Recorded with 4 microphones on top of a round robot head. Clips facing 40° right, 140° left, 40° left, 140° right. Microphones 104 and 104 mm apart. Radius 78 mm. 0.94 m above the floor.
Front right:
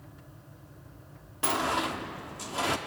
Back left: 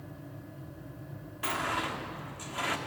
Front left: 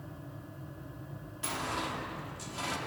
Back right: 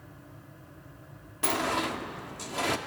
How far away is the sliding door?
About 1.3 m.